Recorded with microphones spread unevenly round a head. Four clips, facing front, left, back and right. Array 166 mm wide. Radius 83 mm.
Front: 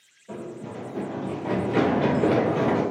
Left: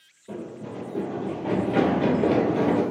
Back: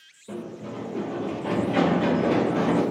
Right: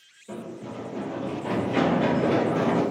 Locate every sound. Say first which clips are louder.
0.3 s running footsteps: left 1 dB, back 1 dB; 140° left, 1.6 m; by 2.8 s 10° left, 1.6 m